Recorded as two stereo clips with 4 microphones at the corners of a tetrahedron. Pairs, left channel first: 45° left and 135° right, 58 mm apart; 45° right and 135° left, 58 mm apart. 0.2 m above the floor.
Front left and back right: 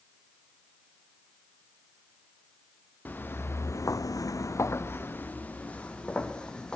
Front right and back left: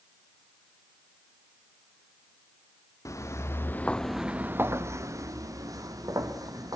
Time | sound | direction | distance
3.0 | footsteps | 15° right | 1.8 m